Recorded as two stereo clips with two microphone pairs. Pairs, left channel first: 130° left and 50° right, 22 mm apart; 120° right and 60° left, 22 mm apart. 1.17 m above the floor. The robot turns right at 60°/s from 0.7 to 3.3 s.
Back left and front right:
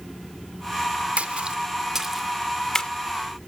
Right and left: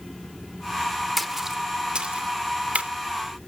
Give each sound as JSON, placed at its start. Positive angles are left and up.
{"t": 1.2, "sound": "a splash", "azimuth_deg": -20, "distance_m": 1.0}